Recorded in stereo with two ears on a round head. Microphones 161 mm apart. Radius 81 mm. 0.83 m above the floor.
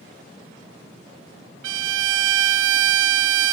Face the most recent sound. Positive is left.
turn(degrees=-75)  # may be behind; listen again after turning